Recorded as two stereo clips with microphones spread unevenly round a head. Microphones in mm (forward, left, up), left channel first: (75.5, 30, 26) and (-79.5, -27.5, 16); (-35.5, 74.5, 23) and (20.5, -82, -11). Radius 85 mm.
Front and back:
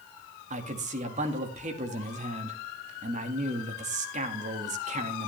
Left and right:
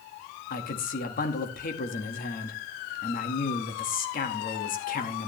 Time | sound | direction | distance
0.5 | a man speaking | 150° left | 1.9 m